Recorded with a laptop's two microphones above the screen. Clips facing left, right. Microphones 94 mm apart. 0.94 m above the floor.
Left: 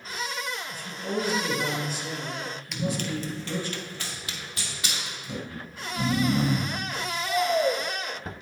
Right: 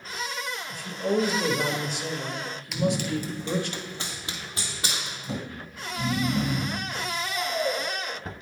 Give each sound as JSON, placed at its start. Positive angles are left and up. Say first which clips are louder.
{"t": 0.7, "sound": "a man speaking", "louder": "right 8 dB", "side_deg": -65, "distance_m": 1.2}
{"t": 2.7, "sound": "running footsteps", "louder": "right 4 dB", "side_deg": -5, "distance_m": 1.0}
{"t": 5.5, "sound": "snoring", "louder": "left 1 dB", "side_deg": 35, "distance_m": 0.6}